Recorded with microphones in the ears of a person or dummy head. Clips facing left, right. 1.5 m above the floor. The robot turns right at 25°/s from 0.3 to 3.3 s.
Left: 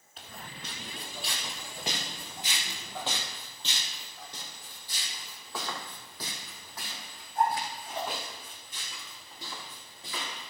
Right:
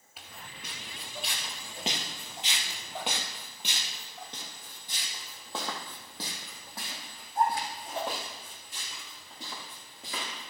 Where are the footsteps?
5° right (ahead or behind), 1.6 m; by 10.5 s 30° right (ahead or behind), 5.5 m.